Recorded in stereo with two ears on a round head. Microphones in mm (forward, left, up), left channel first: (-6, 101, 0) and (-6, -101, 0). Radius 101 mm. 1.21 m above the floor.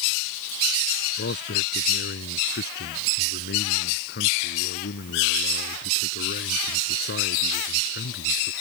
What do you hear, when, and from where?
1.2 s a man speaking: 50° left (ahead or behind)